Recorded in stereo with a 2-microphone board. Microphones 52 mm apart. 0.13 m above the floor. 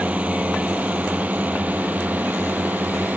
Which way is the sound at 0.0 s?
25° right (ahead or behind).